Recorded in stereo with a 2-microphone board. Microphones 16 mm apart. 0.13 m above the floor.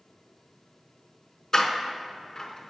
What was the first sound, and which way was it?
A door slam, 30° left (ahead or behind).